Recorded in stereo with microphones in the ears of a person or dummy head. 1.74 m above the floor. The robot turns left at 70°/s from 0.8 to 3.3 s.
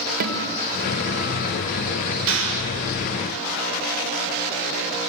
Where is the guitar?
50° right, 3.5 m; by 1.6 s 105° right, 3.5 m.